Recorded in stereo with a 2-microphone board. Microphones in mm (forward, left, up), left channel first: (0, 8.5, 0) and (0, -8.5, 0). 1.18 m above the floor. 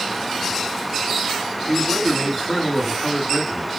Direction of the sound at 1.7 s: 5° left (ahead or behind).